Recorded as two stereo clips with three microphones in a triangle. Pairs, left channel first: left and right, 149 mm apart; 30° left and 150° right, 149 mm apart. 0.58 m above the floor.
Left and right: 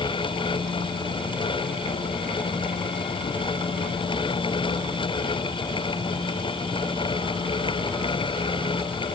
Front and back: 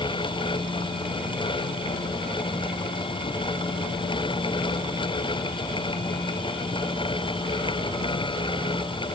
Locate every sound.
Only background noise.